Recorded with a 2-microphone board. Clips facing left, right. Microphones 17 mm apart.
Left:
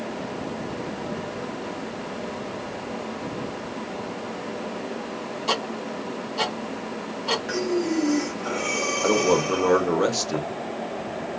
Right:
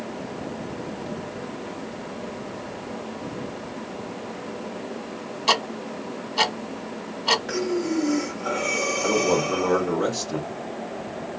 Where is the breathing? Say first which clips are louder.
Left 1 dB; 5° right (ahead or behind), 1.3 m.